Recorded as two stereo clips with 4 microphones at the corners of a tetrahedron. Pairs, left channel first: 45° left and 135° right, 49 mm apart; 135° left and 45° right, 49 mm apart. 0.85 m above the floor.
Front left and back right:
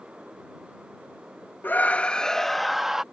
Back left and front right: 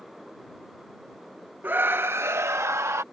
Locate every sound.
1.6 s a scream: straight ahead; by 3.0 s 55° right